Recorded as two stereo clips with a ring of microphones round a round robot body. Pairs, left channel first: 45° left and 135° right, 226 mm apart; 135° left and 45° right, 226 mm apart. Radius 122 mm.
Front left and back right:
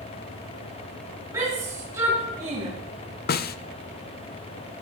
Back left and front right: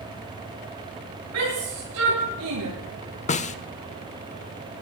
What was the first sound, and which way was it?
A shout, 60° right.